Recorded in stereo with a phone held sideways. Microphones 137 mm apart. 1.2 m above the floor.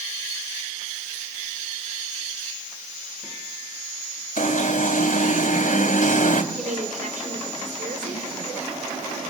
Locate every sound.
4.4 s an alarm: 65° left (ahead or behind), 3 m
6.5 s a woman speaking: 65° right (ahead or behind), 4.5 m